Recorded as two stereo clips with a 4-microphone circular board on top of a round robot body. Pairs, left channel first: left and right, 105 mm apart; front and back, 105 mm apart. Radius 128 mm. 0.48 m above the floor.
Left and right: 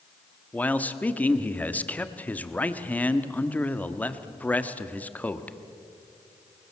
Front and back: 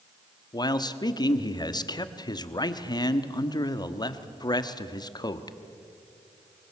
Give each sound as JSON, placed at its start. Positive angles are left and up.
{"t": 0.5, "sound": "a man speaking", "azimuth_deg": 20, "distance_m": 1.3}